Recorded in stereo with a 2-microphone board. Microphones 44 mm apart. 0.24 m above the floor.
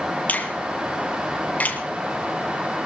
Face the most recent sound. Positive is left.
turn(degrees=35)  # may be behind; listen again after turning